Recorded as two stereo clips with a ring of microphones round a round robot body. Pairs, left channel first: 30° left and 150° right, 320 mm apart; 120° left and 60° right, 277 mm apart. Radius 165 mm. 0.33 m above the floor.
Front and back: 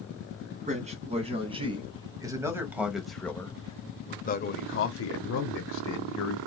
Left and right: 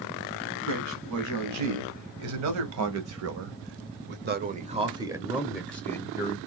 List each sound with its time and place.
0.7 s a man speaking: 80° right, 2.5 m; by 6.4 s 50° left, 1.6 m